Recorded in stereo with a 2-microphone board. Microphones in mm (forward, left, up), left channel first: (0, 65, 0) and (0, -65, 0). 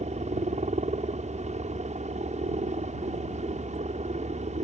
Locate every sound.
0.0 s a helicopter: 65° right (ahead or behind)